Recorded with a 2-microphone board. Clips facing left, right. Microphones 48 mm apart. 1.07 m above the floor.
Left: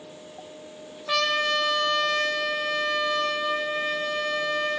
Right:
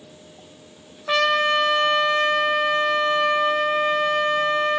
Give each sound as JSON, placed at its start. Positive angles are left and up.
{"t": 1.1, "sound": "a trumpet", "side_deg": -25, "distance_m": 2.5}